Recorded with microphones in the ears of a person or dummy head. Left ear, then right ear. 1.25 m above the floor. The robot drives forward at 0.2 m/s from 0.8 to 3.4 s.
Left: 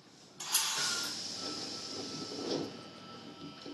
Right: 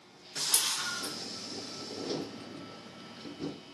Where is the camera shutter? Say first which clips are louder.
Right 2 dB; 60° right (ahead or behind), 1.5 m.